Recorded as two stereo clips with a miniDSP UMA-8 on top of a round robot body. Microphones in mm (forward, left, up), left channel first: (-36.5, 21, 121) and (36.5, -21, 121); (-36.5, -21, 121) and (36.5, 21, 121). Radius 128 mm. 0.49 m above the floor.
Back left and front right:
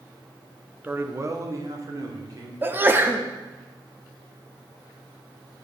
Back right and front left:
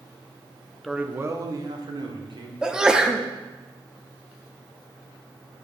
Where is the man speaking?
60° right, 0.7 m; by 2.5 s 15° left, 1.8 m.